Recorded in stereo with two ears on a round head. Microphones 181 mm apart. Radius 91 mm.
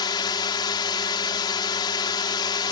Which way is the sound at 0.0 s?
25° left (ahead or behind).